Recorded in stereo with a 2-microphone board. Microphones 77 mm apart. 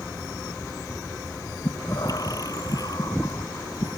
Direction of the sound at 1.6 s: 55° left (ahead or behind).